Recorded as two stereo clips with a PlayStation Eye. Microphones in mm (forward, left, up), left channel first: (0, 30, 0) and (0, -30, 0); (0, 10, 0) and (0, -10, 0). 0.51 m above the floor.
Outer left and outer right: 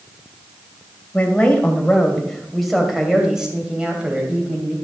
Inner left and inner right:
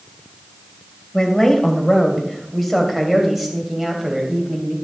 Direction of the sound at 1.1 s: 20° left (ahead or behind).